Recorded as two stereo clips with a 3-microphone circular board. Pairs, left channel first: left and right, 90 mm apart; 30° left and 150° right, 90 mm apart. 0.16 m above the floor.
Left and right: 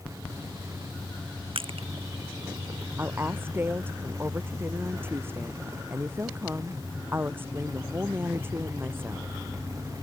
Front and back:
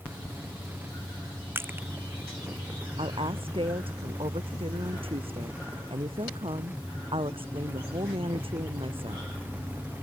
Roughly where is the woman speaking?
Behind right.